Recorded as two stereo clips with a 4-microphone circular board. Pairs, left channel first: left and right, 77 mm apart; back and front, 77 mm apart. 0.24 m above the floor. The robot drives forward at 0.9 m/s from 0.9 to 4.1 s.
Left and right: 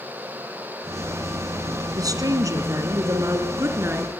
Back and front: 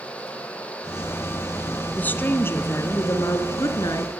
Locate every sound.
1.9 s a woman speaking: 115° right, 2.5 m; by 4.1 s 145° right, 3.5 m